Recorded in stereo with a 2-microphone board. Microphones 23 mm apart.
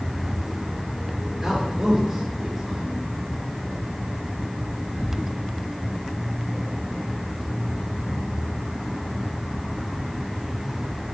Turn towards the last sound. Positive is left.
turn(degrees=-15)  # may be behind; listen again after turning